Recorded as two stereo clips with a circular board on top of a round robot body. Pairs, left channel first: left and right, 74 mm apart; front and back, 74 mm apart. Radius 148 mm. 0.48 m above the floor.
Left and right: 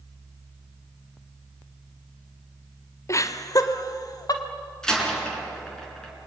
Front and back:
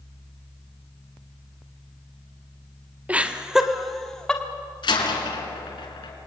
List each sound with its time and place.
3.1 s laughter: 115° left, 1.4 m; by 4.4 s 80° left, 1.7 m
4.8 s a door slam: 10° left, 4.5 m